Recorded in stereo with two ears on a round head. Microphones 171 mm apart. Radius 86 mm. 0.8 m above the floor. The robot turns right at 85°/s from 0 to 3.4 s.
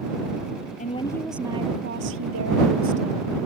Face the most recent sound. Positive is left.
turn(degrees=0)